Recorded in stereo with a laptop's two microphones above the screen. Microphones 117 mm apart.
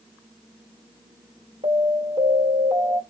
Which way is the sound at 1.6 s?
85° right.